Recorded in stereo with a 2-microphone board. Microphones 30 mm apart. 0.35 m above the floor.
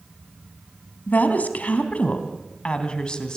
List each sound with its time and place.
1.1 s a woman speaking: 60° left (ahead or behind), 3.5 m; by 3.4 s 25° left (ahead or behind), 3.5 m